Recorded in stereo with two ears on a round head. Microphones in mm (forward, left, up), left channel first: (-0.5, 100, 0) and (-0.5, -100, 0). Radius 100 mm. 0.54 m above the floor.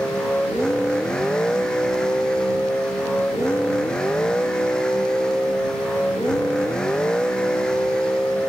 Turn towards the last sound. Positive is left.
turn(degrees=5)  # may be behind; listen again after turning